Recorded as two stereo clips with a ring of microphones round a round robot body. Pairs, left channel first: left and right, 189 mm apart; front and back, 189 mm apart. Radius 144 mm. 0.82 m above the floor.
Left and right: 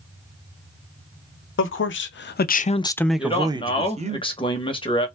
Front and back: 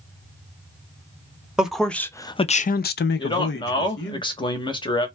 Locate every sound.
1.6 s a man speaking: 95° left, 0.8 m; by 4.2 s 35° right, 0.9 m
3.2 s a man speaking: 45° left, 1.0 m